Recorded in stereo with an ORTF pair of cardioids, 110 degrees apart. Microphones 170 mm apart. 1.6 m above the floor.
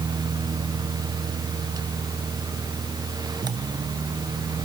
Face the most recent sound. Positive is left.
turn(degrees=-25)